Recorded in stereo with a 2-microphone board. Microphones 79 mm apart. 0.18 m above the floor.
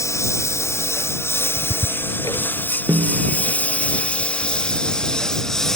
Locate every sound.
0.0 s a lawn mower: 40° left (ahead or behind); by 5.8 s 5° left (ahead or behind)
1.6 s ticking: 55° left (ahead or behind)
2.9 s a snare drum: 60° right (ahead or behind)